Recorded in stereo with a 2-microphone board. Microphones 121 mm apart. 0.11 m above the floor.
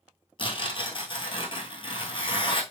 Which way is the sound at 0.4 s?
45° left (ahead or behind).